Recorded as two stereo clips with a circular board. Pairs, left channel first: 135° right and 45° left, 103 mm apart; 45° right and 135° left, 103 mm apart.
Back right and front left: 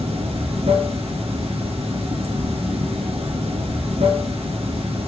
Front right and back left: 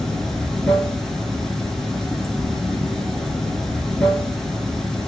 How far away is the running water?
About 1.1 m.